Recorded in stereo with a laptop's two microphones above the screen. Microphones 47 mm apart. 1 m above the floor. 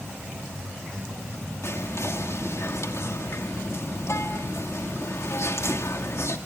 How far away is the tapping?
I don't hear tapping.